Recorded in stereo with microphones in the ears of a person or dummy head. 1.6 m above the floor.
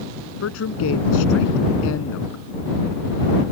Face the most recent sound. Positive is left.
turn(degrees=80)